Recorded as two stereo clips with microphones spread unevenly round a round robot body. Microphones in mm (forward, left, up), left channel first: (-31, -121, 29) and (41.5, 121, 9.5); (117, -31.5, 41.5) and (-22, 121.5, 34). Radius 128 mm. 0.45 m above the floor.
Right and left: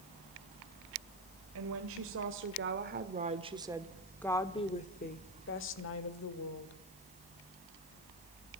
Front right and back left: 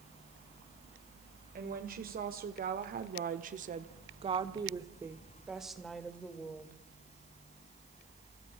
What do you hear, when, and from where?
1.6 s a woman speaking: 90° left, 2.5 m; by 6.8 s 130° right, 2.5 m